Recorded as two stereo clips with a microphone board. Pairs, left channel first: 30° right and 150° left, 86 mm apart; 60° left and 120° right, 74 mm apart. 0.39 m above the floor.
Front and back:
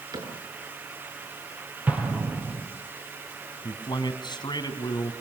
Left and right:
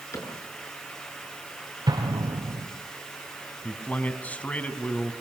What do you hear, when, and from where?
0.1 s a cupboard door: 110° left, 6.5 m
1.9 s an explosion: 140° right, 4.5 m
3.6 s a man speaking: 10° right, 3 m